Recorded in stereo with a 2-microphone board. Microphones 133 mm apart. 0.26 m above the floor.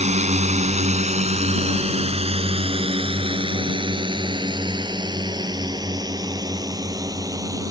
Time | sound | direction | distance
0.0 | a drone | 60° right (ahead or behind) | ?